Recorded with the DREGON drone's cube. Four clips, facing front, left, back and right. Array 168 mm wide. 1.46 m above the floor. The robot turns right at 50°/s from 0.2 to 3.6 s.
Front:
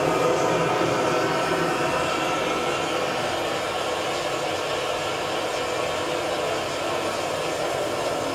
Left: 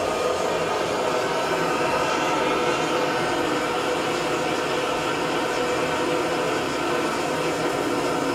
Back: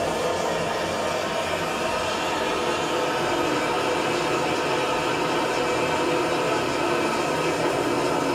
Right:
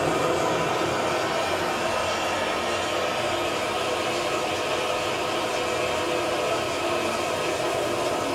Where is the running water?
25° right, 1.7 m; by 8.4 s 145° left, 1.7 m.